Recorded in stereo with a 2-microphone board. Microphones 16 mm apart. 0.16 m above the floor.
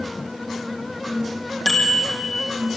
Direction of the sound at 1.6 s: 25° left (ahead or behind).